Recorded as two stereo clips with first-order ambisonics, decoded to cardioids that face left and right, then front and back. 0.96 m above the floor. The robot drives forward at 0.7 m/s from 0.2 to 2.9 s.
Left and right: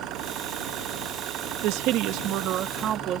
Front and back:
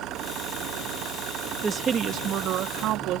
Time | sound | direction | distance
0.0 | an engine running | 130° right | ?
1.6 | a woman speaking | 105° right | ?